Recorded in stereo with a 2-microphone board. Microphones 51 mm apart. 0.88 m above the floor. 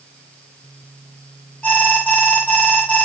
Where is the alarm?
25° left (ahead or behind), 1.8 m.